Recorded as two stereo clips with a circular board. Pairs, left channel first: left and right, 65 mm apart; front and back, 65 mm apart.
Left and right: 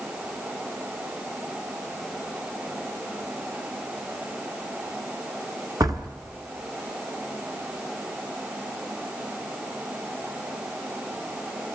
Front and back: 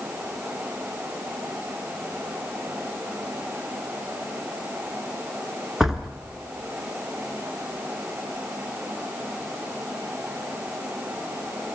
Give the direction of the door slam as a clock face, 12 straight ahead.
3 o'clock.